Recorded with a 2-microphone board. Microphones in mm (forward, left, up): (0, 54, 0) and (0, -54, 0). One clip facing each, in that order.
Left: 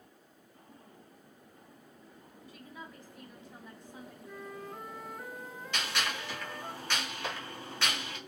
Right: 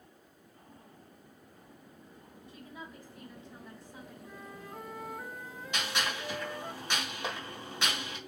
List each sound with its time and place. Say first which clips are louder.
2.5 s a woman speaking: right 1 dB; 25° right (ahead or behind), 1.4 m; by 4.1 s 30° left (ahead or behind), 1.5 m
4.2 s a flute: left 6 dB; 5° right (ahead or behind), 0.8 m
5.7 s a gunshot: right 1 dB; 15° right (ahead or behind), 1.9 m